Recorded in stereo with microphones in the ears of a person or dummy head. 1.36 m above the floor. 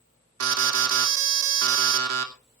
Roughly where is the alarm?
Right.